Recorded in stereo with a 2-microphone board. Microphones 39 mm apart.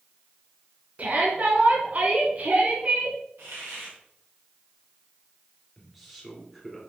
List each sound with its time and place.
1.0 s a shout: 45° right (ahead or behind), 2.5 m
3.4 s a hiss: 70° right (ahead or behind), 4 m
5.8 s a man speaking: centre (ahead or behind), 3 m